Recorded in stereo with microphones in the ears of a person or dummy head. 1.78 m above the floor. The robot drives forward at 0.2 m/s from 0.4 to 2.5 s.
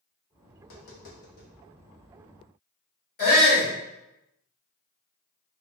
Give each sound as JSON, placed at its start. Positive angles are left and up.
{"t": 0.6, "sound": "tapping", "side_deg": 55, "distance_m": 1.2}
{"t": 3.2, "sound": "a shout", "side_deg": 45, "distance_m": 1.7}